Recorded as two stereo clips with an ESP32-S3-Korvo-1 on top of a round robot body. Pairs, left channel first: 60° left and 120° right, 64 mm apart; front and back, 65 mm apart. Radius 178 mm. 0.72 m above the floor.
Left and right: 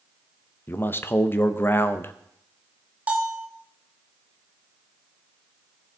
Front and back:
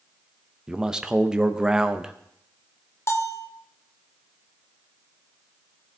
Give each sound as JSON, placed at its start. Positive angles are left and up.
{"t": 0.7, "sound": "a man speaking", "azimuth_deg": 105, "distance_m": 1.1}
{"t": 3.1, "sound": "a bell", "azimuth_deg": -50, "distance_m": 1.0}